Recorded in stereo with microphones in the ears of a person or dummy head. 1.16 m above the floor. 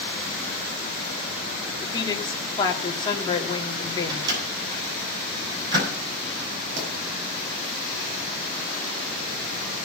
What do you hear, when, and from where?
1.8 s a woman speaking: 20° left (ahead or behind), 3 m
4.1 s a microwave: 30° right (ahead or behind), 9.5 m
6.8 s a pop: 50° right (ahead or behind), 8.5 m